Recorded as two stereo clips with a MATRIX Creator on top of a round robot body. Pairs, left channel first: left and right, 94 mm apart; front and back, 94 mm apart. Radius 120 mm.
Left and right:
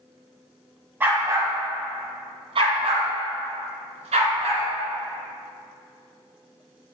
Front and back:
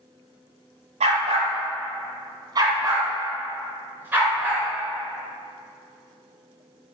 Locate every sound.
1.0 s a dog barking: 165° right, 1.4 m; by 4.7 s 105° right, 2.5 m